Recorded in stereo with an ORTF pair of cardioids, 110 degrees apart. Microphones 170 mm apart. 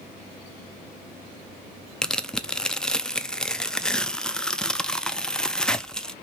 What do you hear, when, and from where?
2.0 s tearing paper: 5° left, 0.5 m